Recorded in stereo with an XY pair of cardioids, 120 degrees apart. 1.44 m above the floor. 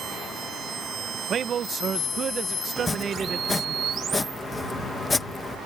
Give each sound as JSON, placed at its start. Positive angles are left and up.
{"t": 1.1, "sound": "a man speaking", "azimuth_deg": -45}
{"t": 2.8, "sound": "chopping", "azimuth_deg": 20}